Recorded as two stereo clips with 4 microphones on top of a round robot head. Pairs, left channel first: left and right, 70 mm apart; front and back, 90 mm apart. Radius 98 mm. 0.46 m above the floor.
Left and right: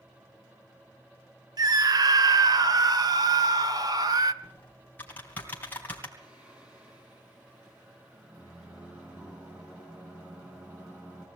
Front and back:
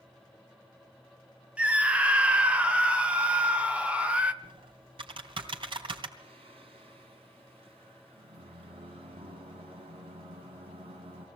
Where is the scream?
105° right, 1.6 m.